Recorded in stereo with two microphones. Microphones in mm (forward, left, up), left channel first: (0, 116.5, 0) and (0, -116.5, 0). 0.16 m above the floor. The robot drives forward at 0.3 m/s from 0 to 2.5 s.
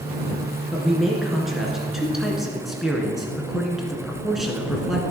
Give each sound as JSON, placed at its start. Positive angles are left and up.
{"t": 0.7, "sound": "a man speaking", "side_deg": 0, "distance_m": 2.0}